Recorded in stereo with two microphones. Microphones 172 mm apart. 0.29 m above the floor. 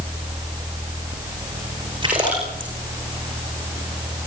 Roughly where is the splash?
Right.